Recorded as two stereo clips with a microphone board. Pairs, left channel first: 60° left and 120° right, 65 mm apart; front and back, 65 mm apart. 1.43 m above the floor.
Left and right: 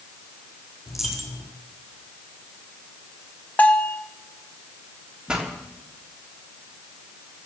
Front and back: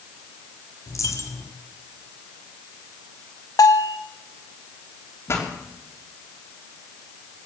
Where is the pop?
45° right, 3.5 m.